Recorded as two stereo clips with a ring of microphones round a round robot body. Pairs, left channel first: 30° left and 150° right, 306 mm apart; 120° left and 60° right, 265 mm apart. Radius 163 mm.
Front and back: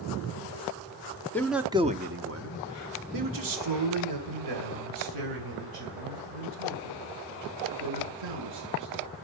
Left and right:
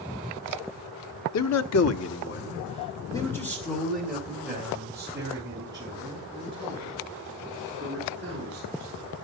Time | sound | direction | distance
1.3 | a man speaking | 115° left | 1.3 m